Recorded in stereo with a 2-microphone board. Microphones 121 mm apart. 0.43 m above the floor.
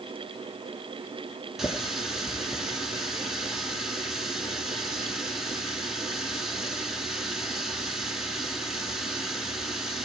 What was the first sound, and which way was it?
A running tap, 5° right (ahead or behind).